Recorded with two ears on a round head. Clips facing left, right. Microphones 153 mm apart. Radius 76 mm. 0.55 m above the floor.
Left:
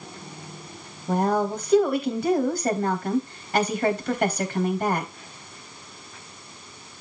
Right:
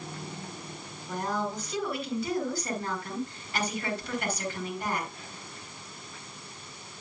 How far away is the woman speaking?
About 3.5 m.